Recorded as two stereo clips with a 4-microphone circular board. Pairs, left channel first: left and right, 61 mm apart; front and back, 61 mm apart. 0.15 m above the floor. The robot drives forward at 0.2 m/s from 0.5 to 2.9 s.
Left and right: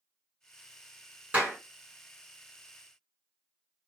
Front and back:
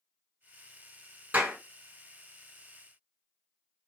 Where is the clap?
130° right, 1.6 m; by 1.6 s 135° right, 1.6 m.